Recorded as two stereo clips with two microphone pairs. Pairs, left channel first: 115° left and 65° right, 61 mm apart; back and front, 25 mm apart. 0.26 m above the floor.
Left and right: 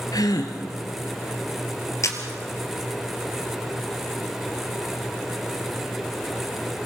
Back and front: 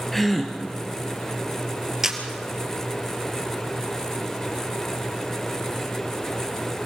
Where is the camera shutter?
80° left, 2.5 m.